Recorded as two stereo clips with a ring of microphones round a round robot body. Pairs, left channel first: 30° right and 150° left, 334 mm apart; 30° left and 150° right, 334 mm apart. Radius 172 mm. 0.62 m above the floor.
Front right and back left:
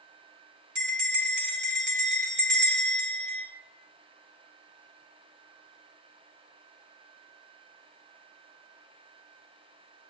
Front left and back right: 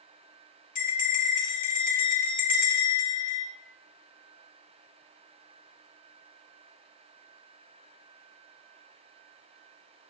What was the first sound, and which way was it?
A bell, 95° left.